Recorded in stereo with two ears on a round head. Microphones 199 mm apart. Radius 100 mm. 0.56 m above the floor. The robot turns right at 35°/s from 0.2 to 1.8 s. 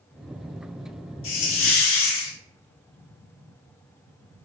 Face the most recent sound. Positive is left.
turn(degrees=65)  # may be behind; listen again after turning